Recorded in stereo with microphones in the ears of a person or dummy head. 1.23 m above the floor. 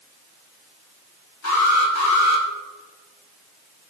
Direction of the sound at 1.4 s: 80° left.